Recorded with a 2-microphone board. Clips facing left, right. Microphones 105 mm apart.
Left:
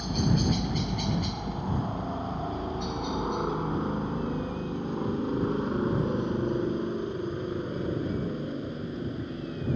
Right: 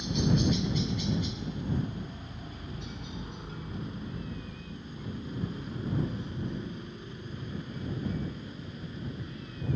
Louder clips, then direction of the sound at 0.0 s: Left 1 dB; 55° left (ahead or behind).